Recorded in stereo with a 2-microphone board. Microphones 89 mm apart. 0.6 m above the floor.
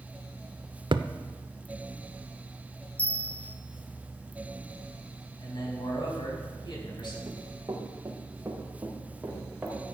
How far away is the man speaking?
About 4 m.